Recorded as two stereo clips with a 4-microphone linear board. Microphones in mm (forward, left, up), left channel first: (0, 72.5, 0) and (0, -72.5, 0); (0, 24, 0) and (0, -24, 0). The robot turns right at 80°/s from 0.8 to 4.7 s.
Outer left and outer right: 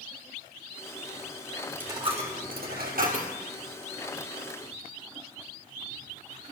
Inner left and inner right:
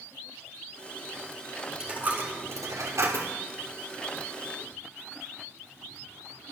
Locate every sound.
1.8 s a dropped coin: 170° right, 2.5 m; by 3.3 s 50° right, 2.5 m